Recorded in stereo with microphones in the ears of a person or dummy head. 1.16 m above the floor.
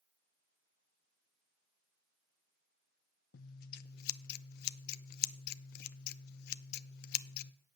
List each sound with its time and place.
3.3 s scissors: 50° left (ahead or behind), 0.5 m